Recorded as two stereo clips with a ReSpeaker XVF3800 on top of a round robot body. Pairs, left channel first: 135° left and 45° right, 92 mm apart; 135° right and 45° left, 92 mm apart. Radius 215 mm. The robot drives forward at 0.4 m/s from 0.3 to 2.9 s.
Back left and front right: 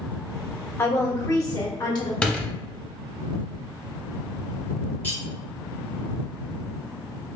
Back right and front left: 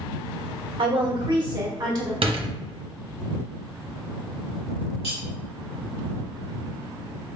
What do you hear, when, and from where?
0.8 s a woman speaking: 75° left, 1.4 m; by 2.1 s 95° left, 1.4 m
2.2 s a door slam: 60° left, 0.8 m; by 2.5 s 65° left, 0.8 m
5.0 s cutlery clinking: 155° right, 2 m